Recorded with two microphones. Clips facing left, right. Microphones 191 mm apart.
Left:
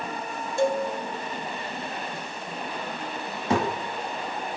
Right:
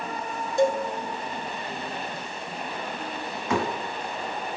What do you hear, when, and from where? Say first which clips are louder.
0.6 s a cowbell: right 1 dB; 15° right (ahead or behind), 0.8 m
3.5 s a thud: left 2 dB; 30° left (ahead or behind), 2 m